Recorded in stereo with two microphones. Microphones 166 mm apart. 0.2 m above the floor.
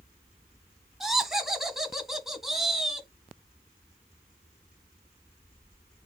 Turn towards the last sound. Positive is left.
turn(degrees=0)  # may be behind; listen again after turning